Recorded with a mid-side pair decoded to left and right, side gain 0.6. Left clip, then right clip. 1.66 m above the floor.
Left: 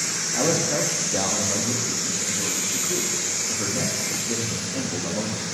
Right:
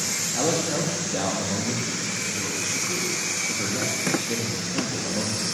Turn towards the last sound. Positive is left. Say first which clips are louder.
# left 3 dB
turn(degrees=5)